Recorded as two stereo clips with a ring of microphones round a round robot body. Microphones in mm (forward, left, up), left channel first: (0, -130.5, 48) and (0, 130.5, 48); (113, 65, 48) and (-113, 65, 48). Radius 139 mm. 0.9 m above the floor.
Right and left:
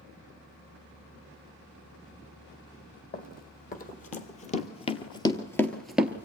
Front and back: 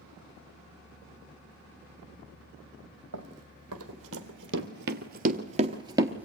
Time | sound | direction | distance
3.1 | running footsteps | 145° right | 1.9 m